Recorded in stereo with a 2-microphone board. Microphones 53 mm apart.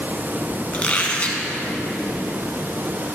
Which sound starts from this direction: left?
A squeak, at 0.7 s.